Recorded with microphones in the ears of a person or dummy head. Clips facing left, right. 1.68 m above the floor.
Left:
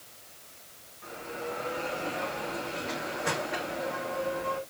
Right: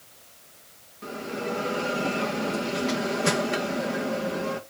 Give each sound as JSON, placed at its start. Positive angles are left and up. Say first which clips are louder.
{"t": 1.0, "sound": "a bell", "louder": "right 6 dB", "side_deg": -50, "distance_m": 1.4}